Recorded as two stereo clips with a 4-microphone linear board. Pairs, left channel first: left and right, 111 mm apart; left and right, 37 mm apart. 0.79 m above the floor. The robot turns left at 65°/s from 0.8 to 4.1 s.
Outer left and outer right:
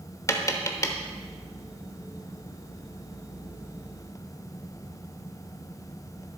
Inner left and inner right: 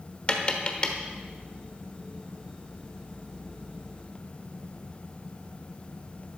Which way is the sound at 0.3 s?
30° left (ahead or behind).